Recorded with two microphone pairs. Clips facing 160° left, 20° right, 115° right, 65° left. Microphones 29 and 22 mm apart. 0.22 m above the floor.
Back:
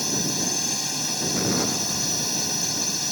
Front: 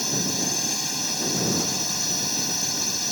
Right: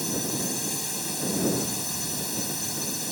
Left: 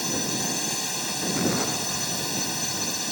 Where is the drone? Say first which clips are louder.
Even, left 2 dB; 65° left.